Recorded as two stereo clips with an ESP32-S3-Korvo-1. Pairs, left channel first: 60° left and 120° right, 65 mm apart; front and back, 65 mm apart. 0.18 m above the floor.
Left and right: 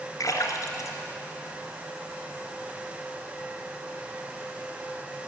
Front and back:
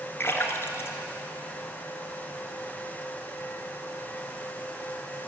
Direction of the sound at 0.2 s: 50° left.